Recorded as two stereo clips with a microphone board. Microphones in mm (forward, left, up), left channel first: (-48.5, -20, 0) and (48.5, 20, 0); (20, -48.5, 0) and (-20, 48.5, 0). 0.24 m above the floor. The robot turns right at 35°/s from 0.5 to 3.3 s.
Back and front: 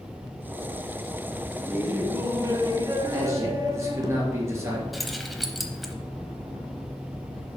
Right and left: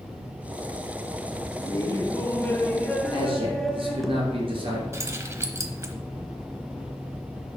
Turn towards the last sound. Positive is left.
turn(degrees=115)